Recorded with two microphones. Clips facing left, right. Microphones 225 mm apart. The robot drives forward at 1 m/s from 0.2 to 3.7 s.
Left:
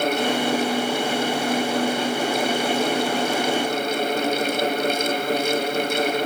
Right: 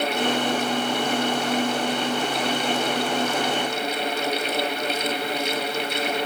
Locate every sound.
Only background noise.